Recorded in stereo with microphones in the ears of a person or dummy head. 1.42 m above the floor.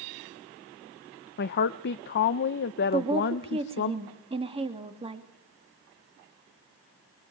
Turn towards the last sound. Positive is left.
turn(degrees=-25)  # may be behind; listen again after turning